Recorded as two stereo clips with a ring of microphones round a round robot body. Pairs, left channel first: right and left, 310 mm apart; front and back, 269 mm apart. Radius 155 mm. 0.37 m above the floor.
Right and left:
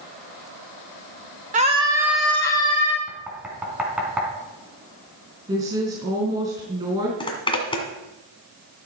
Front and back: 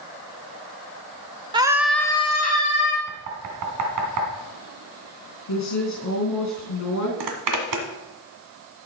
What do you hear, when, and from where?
1.5 s a scream: 125° left, 1.2 m; by 3.0 s 25° right, 1.7 m
3.1 s knocking: 175° left, 2.5 m
5.5 s a woman speaking: 20° left, 3.5 m
7.2 s a zipper: 165° right, 1.9 m